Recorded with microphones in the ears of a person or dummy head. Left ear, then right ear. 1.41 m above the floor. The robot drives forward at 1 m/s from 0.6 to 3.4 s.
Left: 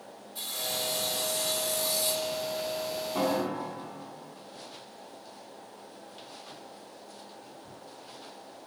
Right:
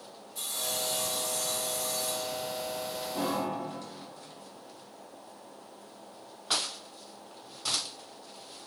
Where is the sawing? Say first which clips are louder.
Left 1 dB; 10° left (ahead or behind), 2.5 m; by 2.4 s 30° left (ahead or behind), 0.8 m.